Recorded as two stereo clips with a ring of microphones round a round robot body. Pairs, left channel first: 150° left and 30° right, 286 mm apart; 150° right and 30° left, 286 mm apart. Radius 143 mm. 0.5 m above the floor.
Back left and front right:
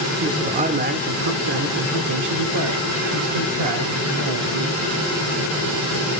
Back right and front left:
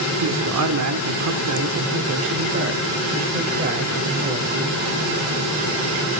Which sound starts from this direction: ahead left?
A man speaking, at 0.2 s.